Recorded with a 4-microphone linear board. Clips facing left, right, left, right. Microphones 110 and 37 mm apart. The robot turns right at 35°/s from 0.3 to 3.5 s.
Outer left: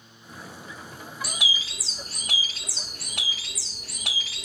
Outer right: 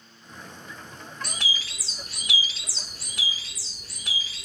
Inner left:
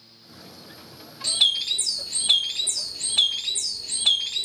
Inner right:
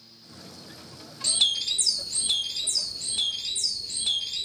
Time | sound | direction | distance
1.2 | a bird | 5° left | 0.5 m